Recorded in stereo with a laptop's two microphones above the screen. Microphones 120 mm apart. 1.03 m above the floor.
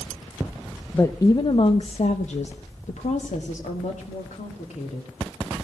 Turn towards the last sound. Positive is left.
turn(degrees=80)